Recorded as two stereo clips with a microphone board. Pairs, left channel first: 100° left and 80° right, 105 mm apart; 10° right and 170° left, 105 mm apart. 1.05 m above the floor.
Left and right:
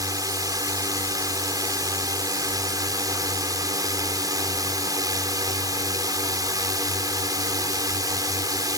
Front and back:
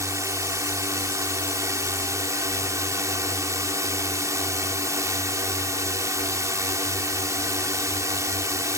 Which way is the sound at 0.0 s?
130° right.